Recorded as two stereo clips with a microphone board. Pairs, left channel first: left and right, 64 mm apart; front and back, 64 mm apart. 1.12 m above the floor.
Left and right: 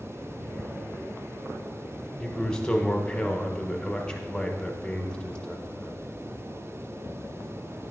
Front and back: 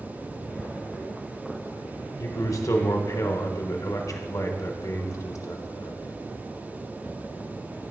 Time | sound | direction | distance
2.2 | a man speaking | 15° left | 1.1 m